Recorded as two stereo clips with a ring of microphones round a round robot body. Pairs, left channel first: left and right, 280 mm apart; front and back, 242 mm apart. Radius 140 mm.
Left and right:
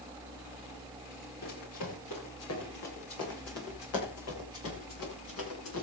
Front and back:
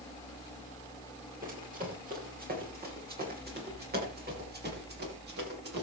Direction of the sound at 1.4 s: 125° left.